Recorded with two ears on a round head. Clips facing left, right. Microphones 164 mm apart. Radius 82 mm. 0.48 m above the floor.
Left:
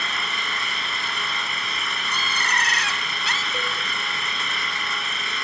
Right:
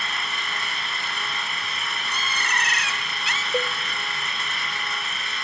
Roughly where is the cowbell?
Right.